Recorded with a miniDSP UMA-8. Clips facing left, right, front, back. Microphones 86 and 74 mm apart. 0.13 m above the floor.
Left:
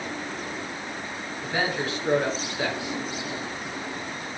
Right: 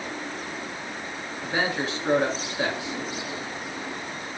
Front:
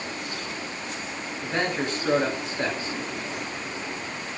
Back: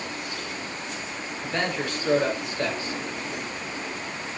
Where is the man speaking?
45° right, 1.3 m.